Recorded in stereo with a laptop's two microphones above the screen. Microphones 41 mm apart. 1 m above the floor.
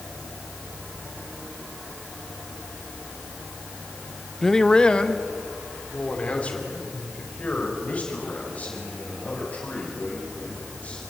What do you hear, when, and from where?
4.4 s a man speaking: 5° left (ahead or behind), 0.6 m; by 11.0 s 30° left (ahead or behind), 9 m